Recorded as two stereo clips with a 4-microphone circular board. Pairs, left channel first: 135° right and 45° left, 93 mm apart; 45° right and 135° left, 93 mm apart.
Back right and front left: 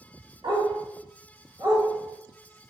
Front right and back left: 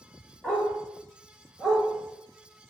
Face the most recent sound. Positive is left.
turn(degrees=40)